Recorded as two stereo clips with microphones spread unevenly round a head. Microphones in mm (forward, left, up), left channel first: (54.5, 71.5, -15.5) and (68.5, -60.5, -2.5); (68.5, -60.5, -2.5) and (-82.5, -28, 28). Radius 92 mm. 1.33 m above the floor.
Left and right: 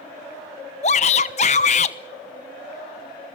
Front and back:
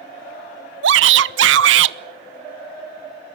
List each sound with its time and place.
0.8 s a shout: 150° left, 0.8 m